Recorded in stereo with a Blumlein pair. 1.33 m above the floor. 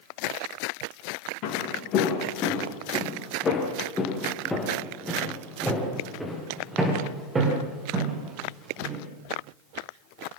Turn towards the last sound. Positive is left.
turn(degrees=-25)